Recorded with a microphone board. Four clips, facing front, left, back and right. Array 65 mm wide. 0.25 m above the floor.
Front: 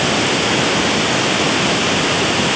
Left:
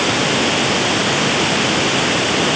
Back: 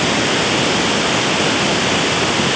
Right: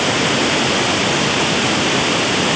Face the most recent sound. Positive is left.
No sound to turn to.